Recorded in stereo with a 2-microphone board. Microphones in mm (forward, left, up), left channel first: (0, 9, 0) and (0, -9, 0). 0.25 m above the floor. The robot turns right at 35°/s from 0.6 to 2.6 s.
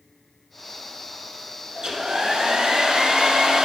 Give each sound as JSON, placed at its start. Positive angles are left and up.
{"t": 1.8, "sound": "a hair dryer", "side_deg": -65, "distance_m": 1.0}